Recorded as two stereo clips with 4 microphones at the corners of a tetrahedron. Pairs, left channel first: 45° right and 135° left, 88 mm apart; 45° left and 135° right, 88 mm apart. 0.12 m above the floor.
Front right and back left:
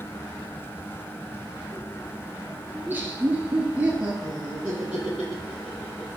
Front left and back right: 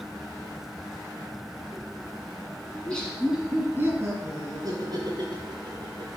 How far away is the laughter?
About 1.3 m.